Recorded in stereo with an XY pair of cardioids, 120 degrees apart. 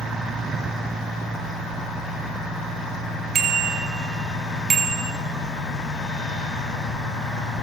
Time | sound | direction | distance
3.4 | a bicycle bell | 55° right | 4.5 m